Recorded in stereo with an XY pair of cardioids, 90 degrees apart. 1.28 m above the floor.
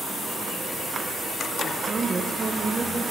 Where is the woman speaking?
35° right, 0.6 m.